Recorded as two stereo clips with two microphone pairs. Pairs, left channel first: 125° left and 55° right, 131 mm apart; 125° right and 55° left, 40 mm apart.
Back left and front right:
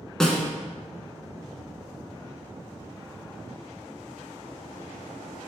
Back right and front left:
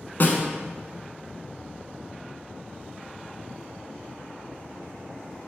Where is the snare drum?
150° right, 1.2 m.